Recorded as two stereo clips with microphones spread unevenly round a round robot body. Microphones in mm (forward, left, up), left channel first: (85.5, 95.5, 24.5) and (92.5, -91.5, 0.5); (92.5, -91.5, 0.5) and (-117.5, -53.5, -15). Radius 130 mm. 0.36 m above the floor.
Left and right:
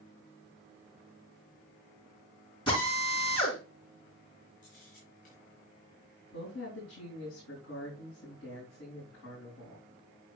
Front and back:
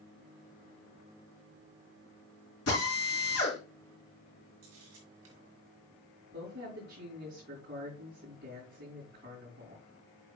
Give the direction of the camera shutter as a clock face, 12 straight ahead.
7 o'clock.